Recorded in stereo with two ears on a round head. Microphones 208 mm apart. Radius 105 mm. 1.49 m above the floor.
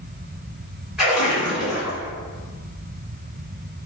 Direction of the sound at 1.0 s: 5° right (ahead or behind).